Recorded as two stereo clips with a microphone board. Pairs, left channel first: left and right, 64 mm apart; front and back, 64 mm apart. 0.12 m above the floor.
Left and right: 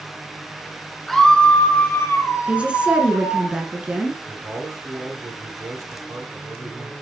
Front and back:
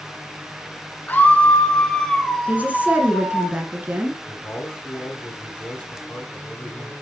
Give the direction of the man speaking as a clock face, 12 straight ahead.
2 o'clock.